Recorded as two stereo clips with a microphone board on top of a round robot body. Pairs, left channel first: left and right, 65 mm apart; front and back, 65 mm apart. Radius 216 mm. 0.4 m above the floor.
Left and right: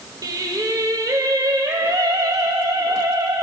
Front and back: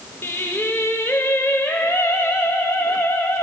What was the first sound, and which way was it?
Singing, 60° right.